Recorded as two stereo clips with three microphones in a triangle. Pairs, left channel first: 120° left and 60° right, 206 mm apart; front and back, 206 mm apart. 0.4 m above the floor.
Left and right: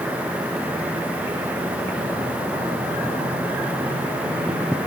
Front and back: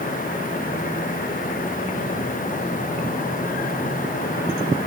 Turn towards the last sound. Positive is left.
No sound to turn to.